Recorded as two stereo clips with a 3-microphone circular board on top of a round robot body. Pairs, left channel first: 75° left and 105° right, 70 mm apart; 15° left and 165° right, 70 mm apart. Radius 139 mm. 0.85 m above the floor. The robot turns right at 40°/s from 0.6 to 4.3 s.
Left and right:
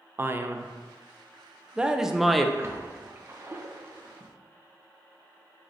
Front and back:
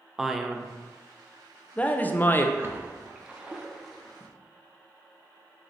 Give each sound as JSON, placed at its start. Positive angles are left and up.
{"t": 0.2, "sound": "a man speaking", "azimuth_deg": -85, "distance_m": 0.5}
{"t": 2.6, "sound": "a splash", "azimuth_deg": -130, "distance_m": 0.7}